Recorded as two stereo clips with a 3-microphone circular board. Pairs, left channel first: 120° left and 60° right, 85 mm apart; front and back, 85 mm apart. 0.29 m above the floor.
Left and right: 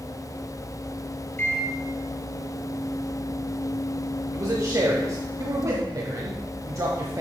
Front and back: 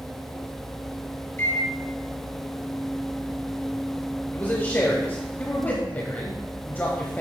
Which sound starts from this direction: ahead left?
A microwave, at 1.4 s.